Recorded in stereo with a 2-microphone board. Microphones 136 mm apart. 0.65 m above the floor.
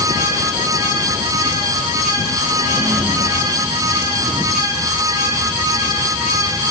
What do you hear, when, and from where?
Only background noise.